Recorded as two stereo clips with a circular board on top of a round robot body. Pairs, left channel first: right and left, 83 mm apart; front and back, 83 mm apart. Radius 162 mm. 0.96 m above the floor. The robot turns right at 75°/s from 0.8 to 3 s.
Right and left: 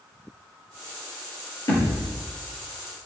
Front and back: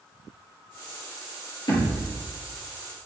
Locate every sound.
1.7 s a thud: 40° right, 4 m; by 2.1 s 5° right, 4 m